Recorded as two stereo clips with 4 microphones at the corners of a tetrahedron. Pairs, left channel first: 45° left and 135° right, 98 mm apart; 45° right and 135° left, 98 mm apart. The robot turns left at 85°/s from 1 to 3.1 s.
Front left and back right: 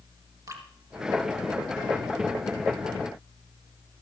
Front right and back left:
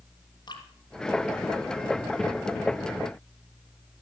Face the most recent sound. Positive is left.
turn(degrees=100)